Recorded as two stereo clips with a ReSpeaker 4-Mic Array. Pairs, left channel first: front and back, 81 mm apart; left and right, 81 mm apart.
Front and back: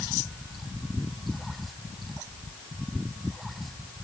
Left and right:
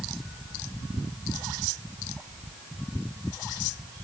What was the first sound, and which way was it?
Only background noise.